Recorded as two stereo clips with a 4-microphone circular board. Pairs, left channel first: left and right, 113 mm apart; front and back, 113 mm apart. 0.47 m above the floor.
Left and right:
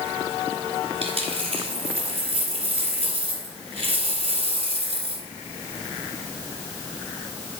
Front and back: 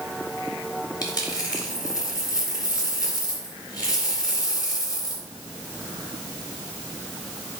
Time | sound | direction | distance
1.0 | a dropped coin | 55° right | 1.9 m